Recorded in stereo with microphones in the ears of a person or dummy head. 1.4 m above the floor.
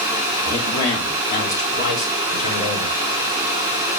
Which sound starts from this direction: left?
A man speaking, at 0.5 s.